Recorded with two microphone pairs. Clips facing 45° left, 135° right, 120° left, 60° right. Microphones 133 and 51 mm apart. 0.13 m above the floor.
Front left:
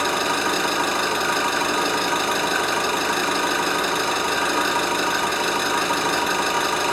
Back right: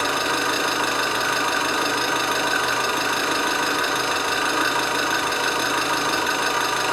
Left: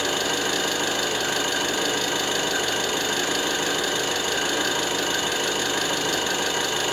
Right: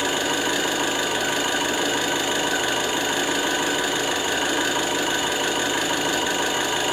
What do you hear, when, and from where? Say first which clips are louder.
0.0 s an engine running: front left 1 dB, right 2 dB; 5° left, 1.6 m